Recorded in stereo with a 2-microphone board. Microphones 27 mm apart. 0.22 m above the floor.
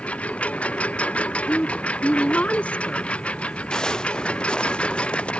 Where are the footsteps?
30° left (ahead or behind); by 5.3 s 50° left (ahead or behind).